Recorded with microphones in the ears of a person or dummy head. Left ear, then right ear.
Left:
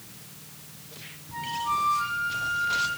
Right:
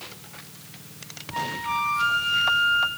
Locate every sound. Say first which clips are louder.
1.3 s a flute: right 1 dB; 90° right, 3 m